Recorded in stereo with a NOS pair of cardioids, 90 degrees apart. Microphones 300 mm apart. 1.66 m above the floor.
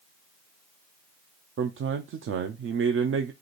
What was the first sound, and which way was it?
A man speaking, 45° right.